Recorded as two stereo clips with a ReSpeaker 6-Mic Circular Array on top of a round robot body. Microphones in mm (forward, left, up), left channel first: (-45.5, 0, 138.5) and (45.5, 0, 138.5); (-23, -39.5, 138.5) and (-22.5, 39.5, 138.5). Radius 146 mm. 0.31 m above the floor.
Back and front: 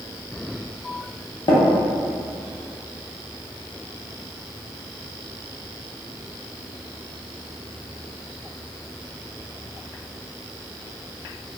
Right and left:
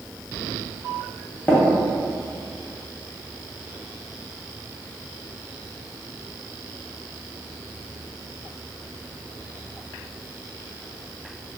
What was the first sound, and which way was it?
Tapping, 155° right.